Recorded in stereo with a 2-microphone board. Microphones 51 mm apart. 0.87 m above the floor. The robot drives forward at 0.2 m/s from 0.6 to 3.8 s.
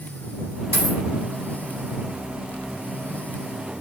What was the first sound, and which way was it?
A dropped coin, 50° right (ahead or behind).